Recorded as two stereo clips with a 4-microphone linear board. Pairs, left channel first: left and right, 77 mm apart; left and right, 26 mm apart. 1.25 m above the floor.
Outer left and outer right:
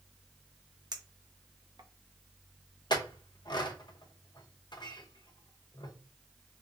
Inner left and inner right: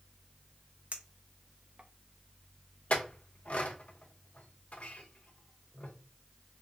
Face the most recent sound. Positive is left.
turn(degrees=70)  # may be behind; listen again after turning